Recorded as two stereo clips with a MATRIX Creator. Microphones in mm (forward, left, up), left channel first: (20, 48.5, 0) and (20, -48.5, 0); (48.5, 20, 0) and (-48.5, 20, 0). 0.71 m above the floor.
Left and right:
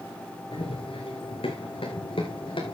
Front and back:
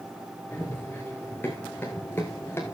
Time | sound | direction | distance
0.5 | running footsteps | 70° left | 5 m